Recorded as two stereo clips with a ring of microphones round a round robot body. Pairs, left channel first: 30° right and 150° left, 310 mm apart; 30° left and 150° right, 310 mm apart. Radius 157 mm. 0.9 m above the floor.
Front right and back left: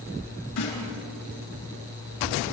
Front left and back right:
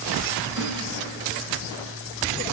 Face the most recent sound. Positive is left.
turn(degrees=-70)